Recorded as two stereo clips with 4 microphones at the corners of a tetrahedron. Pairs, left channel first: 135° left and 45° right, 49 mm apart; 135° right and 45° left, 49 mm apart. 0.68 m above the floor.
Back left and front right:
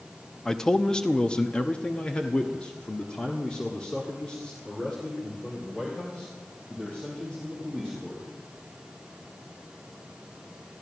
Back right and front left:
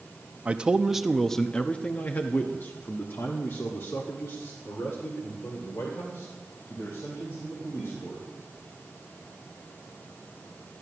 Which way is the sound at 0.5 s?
65° left.